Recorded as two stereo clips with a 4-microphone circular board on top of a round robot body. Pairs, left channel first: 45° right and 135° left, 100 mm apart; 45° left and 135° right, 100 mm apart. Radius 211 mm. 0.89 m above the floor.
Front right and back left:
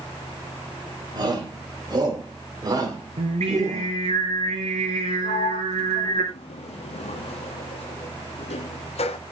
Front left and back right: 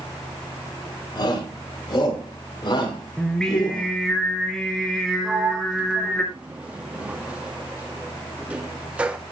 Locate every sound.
1.1 s a shout: 90° left, 5.5 m; by 3.9 s 80° left, 3.5 m
3.2 s singing: 125° left, 0.8 m
5.2 s a sliding door: 55° right, 0.9 m